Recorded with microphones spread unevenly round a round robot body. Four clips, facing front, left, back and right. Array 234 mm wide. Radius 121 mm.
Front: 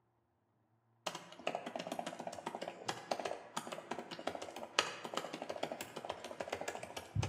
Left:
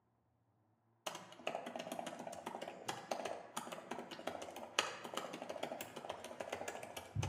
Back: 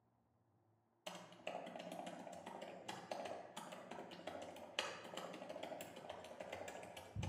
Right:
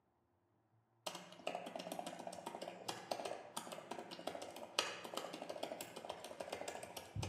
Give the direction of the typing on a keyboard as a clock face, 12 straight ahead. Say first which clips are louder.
Left 1 dB, front 8 dB; 12 o'clock.